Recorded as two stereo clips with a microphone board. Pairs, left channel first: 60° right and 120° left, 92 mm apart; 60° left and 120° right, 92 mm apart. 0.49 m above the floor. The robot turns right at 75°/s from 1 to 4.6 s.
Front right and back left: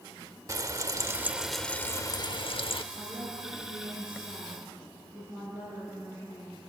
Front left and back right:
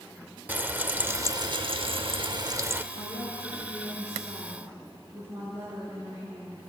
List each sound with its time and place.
0.5 s frying: 170° left, 0.9 m; by 2.8 s 50° right, 0.9 m
2.9 s a woman speaking: 60° left, 7.5 m; by 6.6 s 175° right, 7.5 m